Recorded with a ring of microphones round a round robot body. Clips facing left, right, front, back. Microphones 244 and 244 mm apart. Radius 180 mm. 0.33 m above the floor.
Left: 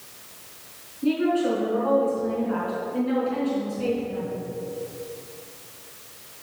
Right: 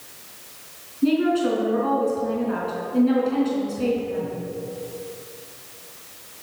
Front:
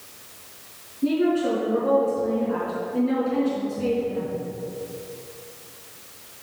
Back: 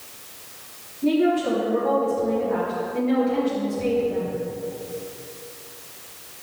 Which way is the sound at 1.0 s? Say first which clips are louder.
Right 3 dB, back 1 dB; 60° right.